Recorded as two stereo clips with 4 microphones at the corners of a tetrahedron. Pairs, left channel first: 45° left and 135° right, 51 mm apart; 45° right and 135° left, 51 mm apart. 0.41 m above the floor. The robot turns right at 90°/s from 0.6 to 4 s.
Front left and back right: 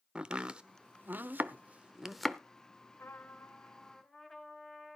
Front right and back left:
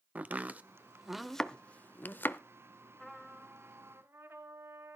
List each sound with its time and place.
0.1 s chopping: 165° left, 0.7 m; by 2.4 s 30° right, 0.7 m
3.0 s a trumpet: 30° left, 1.7 m; by 5.0 s 120° left, 1.7 m